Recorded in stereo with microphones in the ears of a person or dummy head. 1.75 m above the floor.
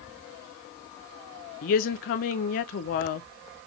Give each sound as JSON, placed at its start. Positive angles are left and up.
{"t": 1.6, "sound": "a woman speaking", "side_deg": 50, "distance_m": 0.8}